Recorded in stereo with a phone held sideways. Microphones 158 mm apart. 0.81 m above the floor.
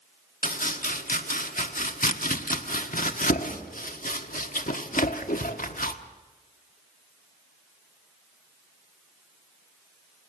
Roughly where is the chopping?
Left.